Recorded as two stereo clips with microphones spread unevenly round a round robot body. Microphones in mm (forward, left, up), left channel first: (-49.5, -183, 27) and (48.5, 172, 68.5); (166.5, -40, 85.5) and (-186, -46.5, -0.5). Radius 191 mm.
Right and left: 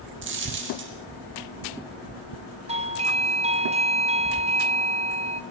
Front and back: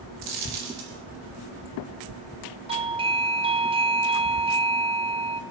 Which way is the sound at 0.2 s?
135° left.